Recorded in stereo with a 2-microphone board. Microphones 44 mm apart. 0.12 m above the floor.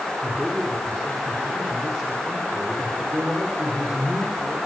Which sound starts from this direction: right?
A man speaking, at 0.2 s.